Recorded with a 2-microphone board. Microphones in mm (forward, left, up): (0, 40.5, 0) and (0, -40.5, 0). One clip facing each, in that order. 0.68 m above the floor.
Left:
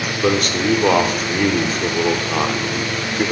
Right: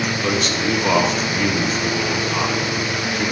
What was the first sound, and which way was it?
A man speaking, 50° left (ahead or behind).